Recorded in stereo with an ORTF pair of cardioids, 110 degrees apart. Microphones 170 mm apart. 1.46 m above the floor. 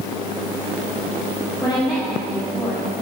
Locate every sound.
1.6 s a woman speaking: straight ahead, 3.5 m; by 3.0 s 10° right, 3 m